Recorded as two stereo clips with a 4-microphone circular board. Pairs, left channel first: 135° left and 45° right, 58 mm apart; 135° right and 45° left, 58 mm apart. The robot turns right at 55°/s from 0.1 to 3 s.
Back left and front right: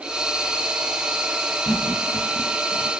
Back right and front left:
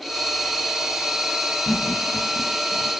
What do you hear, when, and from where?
1.6 s laughter: 155° left, 1.4 m; by 2.9 s 135° right, 1.4 m